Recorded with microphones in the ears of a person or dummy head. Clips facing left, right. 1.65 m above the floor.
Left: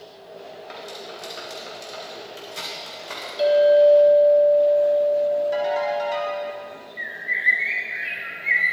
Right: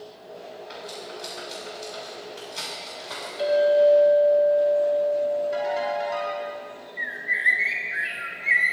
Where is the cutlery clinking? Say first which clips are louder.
Left 1 dB; 60° left (ahead or behind), 4.5 m.